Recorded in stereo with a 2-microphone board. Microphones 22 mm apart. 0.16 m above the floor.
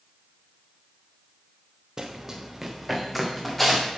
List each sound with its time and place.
2.0 s running footsteps: 25° right (ahead or behind), 1.3 m; by 3.9 s 10° left (ahead or behind), 3 m